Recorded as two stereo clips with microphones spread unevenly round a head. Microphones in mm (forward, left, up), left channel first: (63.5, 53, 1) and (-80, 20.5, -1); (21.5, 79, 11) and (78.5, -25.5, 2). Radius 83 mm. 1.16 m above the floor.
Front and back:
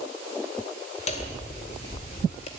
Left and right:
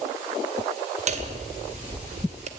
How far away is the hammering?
About 2.0 m.